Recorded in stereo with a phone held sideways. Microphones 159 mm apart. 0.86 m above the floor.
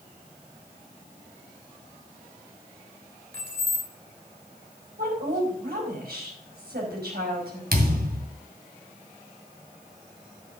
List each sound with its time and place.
3.3 s keys jangling: 80° right, 2.5 m
5.0 s a woman speaking: 85° right, 4.5 m
7.7 s a thud: 75° right (ahead or behind), 2 m